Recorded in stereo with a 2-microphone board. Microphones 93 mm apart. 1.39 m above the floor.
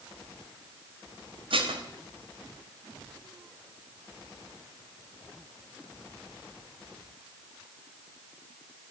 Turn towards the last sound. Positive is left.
turn(degrees=-70)  # may be behind; listen again after turning